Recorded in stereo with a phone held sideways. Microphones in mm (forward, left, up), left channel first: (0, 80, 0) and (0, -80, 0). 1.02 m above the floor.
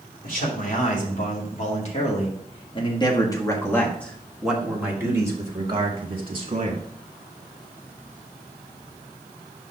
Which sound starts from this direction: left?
A man speaking, at 0.2 s.